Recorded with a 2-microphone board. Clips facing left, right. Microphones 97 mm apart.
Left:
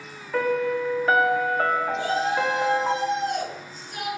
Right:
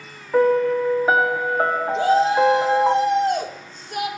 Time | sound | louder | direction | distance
0.3 | a piano | right 7 dB | 20° right (ahead or behind) | 0.7 m
1.9 | a shout | right 7 dB | 60° right (ahead or behind) | 2 m